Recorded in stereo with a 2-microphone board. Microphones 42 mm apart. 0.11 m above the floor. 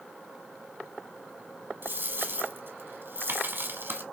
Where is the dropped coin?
50° right (ahead or behind), 1.1 m.